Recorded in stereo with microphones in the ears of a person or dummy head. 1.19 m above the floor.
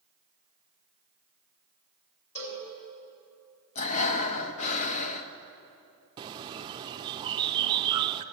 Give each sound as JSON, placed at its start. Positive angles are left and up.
{"t": 2.4, "sound": "a cowbell", "side_deg": 55, "distance_m": 3.5}
{"t": 3.8, "sound": "breathing", "side_deg": 40, "distance_m": 0.7}
{"t": 6.2, "sound": "a bird", "side_deg": -25, "distance_m": 0.5}